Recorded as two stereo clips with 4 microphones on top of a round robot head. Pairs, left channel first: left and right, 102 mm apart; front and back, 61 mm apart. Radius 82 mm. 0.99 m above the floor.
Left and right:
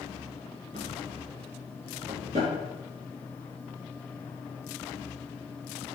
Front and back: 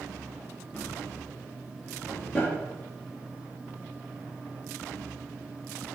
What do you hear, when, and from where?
0.7 s a drawer: 95° right, 3.5 m